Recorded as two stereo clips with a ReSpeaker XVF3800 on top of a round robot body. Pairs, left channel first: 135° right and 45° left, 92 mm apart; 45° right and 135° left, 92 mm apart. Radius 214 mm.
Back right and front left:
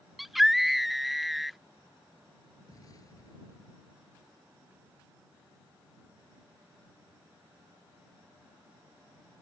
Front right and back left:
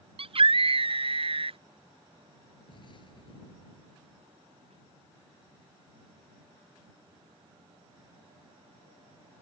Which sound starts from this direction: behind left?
A scream, at 0.2 s.